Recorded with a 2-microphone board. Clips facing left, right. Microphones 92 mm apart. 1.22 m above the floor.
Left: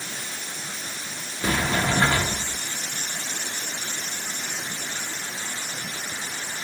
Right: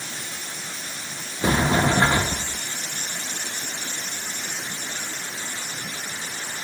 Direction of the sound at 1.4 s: 25° right (ahead or behind).